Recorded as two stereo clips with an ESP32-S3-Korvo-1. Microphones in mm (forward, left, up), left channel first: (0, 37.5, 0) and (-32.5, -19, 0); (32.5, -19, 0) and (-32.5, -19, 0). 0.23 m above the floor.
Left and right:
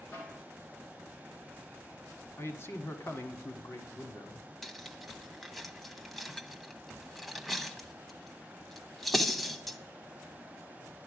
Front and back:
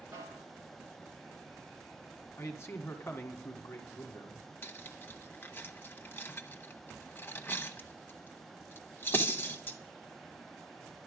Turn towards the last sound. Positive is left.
turn(degrees=-30)